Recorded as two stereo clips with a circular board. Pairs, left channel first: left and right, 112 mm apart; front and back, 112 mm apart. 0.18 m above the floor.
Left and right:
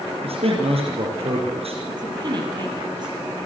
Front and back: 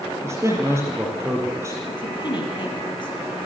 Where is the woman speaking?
45° right, 5 m.